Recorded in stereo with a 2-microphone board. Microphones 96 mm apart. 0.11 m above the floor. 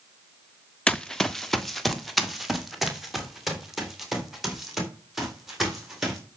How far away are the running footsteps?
About 0.6 m.